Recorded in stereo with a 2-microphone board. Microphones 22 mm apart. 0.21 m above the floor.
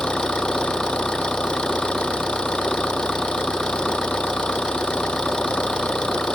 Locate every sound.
0.0 s an engine running: 35° left (ahead or behind)